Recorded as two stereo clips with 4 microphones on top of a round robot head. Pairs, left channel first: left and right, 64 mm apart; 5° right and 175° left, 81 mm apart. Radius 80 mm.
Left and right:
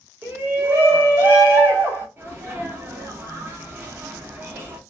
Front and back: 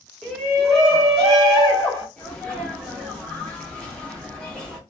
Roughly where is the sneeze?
Right.